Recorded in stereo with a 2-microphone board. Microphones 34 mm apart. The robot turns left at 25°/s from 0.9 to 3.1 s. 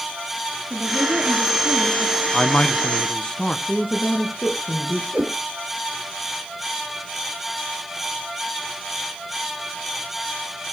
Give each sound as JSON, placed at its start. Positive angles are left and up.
{"t": 0.7, "sound": "a woman speaking", "azimuth_deg": -95, "distance_m": 2.0}
{"t": 2.3, "sound": "a man speaking", "side_deg": 15, "distance_m": 1.2}
{"t": 3.7, "sound": "a woman speaking", "side_deg": 50, "distance_m": 3.0}
{"t": 5.1, "sound": "a whoosh", "side_deg": -45, "distance_m": 1.8}